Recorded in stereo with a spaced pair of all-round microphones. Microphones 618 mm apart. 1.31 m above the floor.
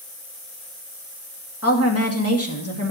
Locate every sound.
1.6 s a woman speaking: 20° left (ahead or behind), 2.5 m